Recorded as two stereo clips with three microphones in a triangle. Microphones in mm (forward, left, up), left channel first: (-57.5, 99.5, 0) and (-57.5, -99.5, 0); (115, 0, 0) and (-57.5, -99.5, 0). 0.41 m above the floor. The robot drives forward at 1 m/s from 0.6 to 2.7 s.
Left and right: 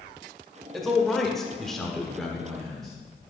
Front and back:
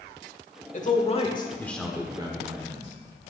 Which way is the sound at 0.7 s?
Straight ahead.